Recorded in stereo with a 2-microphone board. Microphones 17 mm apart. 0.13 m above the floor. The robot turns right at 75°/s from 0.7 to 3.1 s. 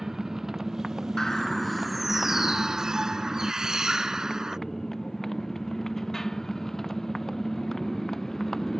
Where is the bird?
130° left; by 4.6 s 85° right.